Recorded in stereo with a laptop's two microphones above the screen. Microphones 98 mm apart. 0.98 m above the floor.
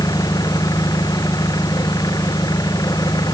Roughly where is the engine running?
Left.